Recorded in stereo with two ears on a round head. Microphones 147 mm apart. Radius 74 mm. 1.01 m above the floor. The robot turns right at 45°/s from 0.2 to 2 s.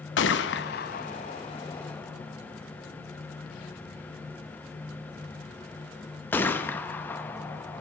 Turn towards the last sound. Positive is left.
turn(degrees=10)  # may be behind; listen again after turning